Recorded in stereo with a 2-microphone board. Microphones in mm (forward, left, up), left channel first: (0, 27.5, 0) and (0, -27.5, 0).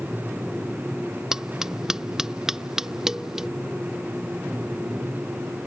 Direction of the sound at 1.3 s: 10° right (ahead or behind).